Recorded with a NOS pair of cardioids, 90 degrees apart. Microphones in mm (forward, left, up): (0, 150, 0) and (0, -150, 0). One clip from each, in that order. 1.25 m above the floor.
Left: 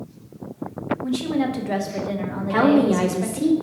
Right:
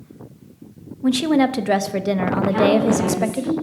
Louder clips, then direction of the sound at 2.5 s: Left 1 dB; 60° left.